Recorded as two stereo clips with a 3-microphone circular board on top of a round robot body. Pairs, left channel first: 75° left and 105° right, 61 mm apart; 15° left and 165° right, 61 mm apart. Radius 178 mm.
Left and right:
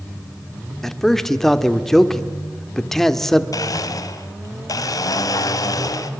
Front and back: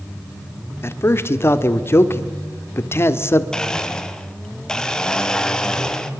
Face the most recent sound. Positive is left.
turn(degrees=95)